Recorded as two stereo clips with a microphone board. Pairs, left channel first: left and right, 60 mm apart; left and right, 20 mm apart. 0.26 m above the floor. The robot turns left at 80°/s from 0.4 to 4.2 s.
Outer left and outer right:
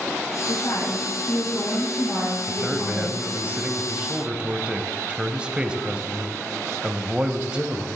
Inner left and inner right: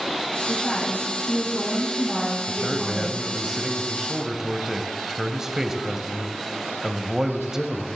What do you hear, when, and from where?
0.5 s a woman speaking: 110° left, 4.5 m; by 3.5 s 130° right, 4.5 m
2.5 s a man speaking: centre (ahead or behind), 1.0 m; by 7.9 s 15° right (ahead or behind), 1.0 m